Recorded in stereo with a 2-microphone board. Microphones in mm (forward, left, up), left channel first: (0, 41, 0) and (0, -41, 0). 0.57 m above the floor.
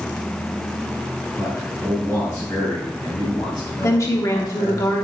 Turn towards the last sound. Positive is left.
turn(degrees=40)  # may be behind; listen again after turning